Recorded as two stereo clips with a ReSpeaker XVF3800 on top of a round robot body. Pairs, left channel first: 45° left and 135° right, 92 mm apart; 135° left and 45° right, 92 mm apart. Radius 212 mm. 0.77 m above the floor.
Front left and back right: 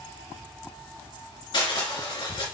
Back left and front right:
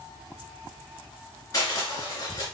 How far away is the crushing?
About 3 m.